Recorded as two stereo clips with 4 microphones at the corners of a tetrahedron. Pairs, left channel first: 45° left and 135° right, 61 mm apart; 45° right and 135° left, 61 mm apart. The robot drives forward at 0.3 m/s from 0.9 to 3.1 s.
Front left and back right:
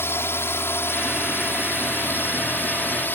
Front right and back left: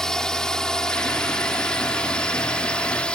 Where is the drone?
30° left; by 3.1 s 20° left.